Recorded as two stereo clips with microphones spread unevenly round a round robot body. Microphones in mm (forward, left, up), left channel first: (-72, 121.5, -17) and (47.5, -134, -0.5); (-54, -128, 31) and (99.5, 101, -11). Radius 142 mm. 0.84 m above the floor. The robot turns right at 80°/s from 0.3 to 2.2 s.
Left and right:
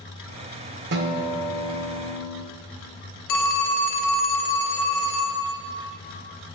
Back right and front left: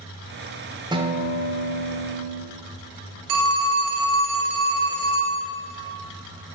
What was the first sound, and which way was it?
A guitar, 25° right.